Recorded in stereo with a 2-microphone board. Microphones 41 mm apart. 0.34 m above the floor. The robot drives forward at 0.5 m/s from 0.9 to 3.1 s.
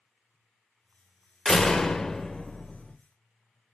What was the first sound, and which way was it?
A door slam, 10° left (ahead or behind).